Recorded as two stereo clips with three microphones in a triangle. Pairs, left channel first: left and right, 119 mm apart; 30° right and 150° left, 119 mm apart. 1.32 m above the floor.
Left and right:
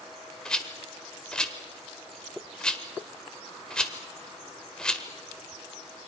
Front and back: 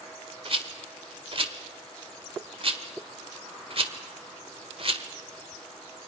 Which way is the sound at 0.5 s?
170° left.